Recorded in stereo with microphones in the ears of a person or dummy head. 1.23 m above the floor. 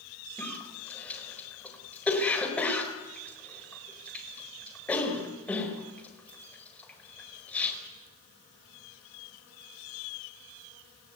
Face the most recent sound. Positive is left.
turn(degrees=5)  # may be behind; listen again after turning